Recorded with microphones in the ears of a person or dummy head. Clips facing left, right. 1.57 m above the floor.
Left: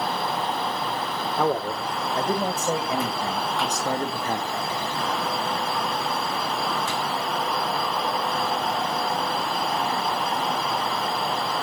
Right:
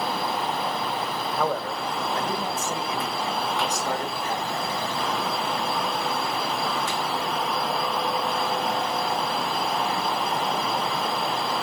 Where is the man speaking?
10° left (ahead or behind), 1.4 m; by 4.5 s 30° left (ahead or behind), 3 m.